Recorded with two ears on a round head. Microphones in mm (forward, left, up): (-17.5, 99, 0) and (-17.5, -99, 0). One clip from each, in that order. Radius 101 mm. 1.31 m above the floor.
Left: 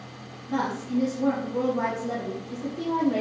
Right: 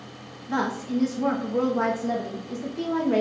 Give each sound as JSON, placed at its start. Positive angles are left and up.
{"t": 0.5, "sound": "a woman speaking", "side_deg": -80, "distance_m": 0.7}